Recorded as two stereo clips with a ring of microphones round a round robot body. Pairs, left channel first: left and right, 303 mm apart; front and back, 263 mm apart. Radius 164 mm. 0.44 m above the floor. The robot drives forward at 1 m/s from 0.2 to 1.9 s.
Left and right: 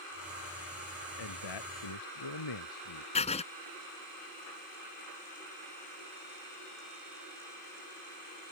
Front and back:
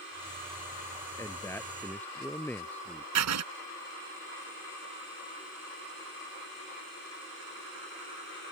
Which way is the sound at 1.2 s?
80° left.